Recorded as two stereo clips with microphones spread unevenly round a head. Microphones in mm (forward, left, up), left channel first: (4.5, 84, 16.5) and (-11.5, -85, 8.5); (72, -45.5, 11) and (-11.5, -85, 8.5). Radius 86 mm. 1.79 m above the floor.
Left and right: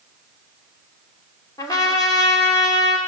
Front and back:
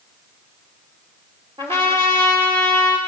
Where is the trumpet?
150° left, 2.5 m.